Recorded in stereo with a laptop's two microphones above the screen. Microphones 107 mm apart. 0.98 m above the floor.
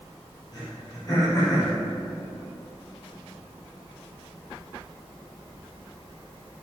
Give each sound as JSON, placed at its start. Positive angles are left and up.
{"t": 0.5, "sound": "throat clearing", "side_deg": 35, "distance_m": 3.5}